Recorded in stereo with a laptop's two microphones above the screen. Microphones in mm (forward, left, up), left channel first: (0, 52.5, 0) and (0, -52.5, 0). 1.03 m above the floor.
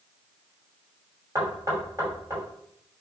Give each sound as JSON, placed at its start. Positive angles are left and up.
{"t": 1.4, "sound": "knocking", "side_deg": -25, "distance_m": 5.0}